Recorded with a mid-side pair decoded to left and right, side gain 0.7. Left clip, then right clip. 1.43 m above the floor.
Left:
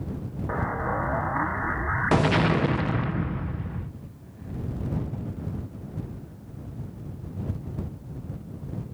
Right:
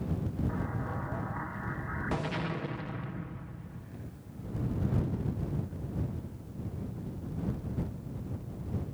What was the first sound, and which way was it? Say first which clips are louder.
An explosion: left 10 dB; 50° left.